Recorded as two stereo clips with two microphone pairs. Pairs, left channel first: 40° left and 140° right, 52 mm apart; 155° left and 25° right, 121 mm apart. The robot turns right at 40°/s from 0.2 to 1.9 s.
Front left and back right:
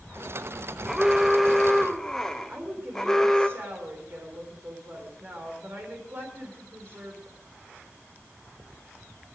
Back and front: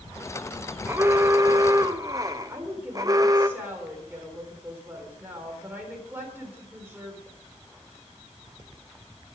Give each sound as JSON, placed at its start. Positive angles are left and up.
{"t": 0.9, "sound": "an alarm", "azimuth_deg": -70, "distance_m": 1.3}
{"t": 2.5, "sound": "a woman speaking", "azimuth_deg": -100, "distance_m": 3.5}